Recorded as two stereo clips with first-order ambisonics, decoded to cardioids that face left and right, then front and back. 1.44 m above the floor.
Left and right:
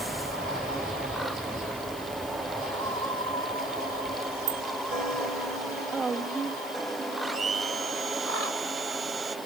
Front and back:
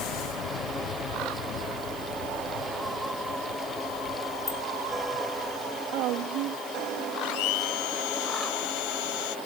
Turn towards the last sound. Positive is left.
turn(degrees=-15)